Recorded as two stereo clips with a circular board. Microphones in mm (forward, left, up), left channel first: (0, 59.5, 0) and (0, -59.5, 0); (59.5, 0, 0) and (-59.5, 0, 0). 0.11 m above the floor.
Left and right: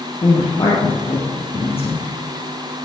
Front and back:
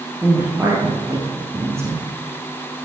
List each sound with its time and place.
0.2 s a woman speaking: 115° left, 3.5 m